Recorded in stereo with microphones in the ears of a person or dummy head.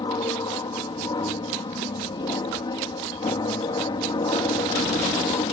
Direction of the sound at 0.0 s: 25° left (ahead or behind).